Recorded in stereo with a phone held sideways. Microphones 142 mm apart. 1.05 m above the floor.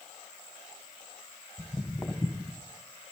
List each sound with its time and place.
1.6 s footsteps: centre (ahead or behind), 1.3 m; by 2.6 s 5° left (ahead or behind), 2 m